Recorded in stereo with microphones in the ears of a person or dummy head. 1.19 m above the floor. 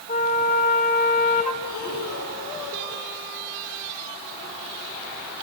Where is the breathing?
50° left (ahead or behind), 5.5 m.